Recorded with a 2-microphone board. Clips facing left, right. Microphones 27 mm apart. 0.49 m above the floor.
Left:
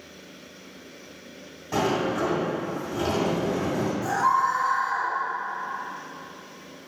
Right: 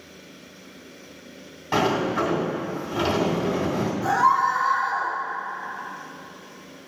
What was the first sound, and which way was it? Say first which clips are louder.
A sliding door: right 3 dB; 40° right (ahead or behind).